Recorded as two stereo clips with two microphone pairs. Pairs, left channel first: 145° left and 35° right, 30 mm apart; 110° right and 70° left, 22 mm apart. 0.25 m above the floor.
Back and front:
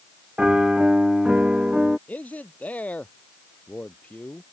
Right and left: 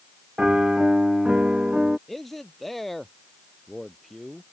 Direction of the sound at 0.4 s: 25° left.